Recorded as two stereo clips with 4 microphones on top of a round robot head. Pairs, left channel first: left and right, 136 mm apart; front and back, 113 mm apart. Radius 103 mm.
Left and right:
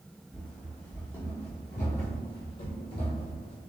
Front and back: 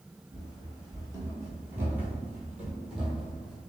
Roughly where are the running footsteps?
Behind.